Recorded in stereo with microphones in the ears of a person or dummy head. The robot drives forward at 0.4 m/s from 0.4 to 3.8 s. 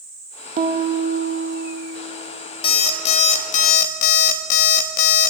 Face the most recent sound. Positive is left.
turn(degrees=50)  # may be behind; listen again after turning